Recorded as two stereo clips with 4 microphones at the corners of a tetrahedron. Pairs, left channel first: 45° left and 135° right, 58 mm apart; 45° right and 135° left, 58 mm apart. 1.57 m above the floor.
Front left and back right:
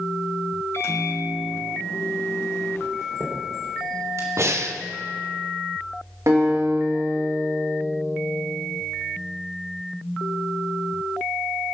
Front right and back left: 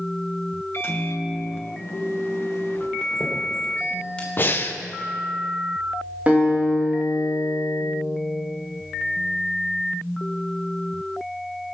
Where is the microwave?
Straight ahead, 1.2 m.